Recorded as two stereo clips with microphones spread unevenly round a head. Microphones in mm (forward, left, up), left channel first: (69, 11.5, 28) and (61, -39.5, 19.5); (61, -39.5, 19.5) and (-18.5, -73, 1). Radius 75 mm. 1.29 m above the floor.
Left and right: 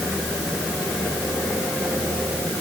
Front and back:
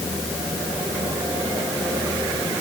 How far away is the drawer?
I don't hear a drawer.